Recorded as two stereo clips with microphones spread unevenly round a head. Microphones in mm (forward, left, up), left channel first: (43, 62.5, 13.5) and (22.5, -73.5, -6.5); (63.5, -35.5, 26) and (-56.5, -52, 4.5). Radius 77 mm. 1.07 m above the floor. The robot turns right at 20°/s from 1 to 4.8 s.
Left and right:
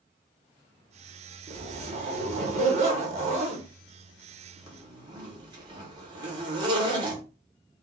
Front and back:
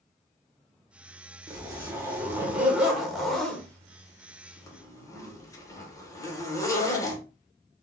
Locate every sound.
1.5 s a zipper: 125° right, 1.0 m; by 7.2 s 55° right, 1.0 m